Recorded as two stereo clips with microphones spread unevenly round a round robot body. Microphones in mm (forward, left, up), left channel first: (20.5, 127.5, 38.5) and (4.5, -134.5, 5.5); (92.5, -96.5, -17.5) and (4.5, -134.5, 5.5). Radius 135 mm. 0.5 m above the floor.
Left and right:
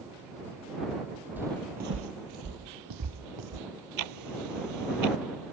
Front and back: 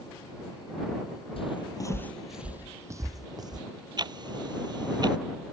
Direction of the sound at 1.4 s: 5° right.